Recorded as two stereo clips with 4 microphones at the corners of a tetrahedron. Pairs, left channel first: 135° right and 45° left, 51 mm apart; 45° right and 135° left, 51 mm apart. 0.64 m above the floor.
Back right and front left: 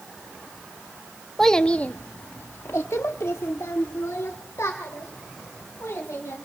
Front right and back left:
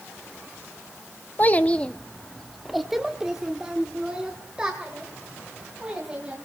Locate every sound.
1.4 s a child speaking: 55° right, 0.7 m; by 6.3 s 155° right, 3.5 m